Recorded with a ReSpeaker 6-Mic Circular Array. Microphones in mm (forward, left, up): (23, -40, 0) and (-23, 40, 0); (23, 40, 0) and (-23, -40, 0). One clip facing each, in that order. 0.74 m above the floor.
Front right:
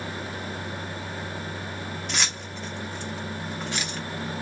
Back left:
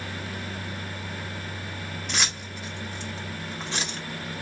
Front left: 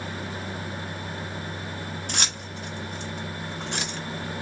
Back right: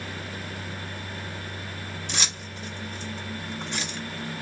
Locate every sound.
2.1 s keys jangling: 30° left, 1.1 m; by 4.0 s 65° left, 1.7 m